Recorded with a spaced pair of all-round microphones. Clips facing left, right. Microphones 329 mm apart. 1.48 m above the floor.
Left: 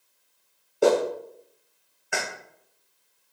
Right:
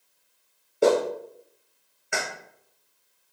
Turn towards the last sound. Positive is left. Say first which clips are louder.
# even
turn(degrees=0)  # may be behind; listen again after turning